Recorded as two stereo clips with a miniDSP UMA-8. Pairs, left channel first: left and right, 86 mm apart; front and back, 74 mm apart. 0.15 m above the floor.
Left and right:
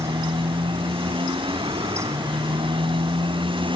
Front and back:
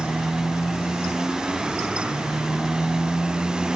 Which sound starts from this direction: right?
A motorcycle, at 0.0 s.